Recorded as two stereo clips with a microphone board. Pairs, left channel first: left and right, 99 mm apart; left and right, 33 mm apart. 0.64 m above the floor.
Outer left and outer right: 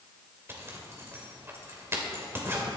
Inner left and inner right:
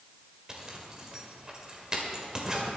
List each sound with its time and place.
0.5 s a zipper: 25° right (ahead or behind), 2.5 m